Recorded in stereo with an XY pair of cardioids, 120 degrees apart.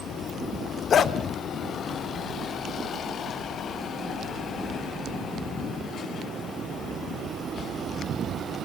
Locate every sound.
0.9 s a dog barking: 45° left, 1.4 m